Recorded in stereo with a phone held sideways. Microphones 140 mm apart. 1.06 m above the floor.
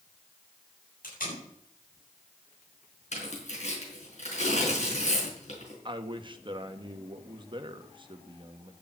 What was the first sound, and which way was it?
Tape being pulled, 85° left.